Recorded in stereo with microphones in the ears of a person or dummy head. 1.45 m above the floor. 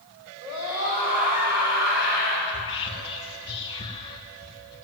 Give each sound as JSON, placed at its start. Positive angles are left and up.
{"t": 0.4, "sound": "a scream", "side_deg": -35, "distance_m": 6.0}
{"t": 2.5, "sound": "whispering", "side_deg": 30, "distance_m": 1.2}